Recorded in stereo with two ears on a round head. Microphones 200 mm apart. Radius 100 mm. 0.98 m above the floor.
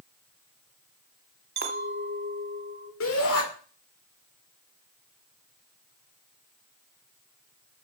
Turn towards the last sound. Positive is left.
turn(degrees=75)  # may be behind; listen again after turning